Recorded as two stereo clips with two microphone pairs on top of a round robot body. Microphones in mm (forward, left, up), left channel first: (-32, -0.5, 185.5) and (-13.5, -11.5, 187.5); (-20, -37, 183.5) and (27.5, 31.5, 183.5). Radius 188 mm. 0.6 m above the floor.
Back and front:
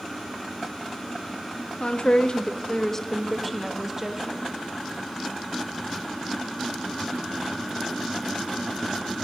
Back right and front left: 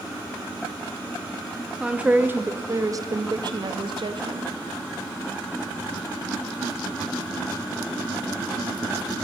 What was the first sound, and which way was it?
A woman speaking, 130° left.